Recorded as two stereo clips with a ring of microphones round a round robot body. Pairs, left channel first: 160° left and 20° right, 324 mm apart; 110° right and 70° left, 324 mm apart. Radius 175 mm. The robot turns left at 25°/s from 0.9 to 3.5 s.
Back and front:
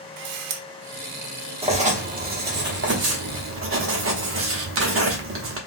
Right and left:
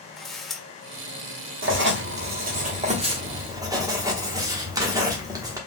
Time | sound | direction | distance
0.2 | a camera shutter | 25° right | 0.7 m
1.6 | writing | 40° left | 1.1 m